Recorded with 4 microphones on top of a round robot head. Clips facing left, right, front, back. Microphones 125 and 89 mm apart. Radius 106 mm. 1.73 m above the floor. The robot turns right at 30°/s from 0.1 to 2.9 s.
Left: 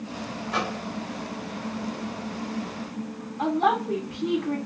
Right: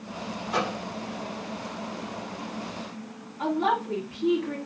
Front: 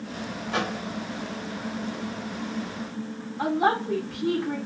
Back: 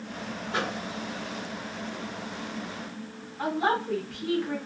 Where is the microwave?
10° right, 2.5 m; by 0.8 s straight ahead, 2.5 m.